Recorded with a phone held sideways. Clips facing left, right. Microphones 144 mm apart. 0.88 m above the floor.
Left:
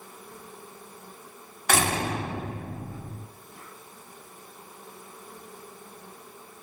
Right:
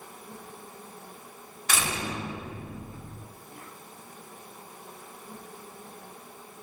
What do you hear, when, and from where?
0.0 s an insect: 60° right (ahead or behind), 9 m
1.7 s a door slam: 60° left (ahead or behind), 1.7 m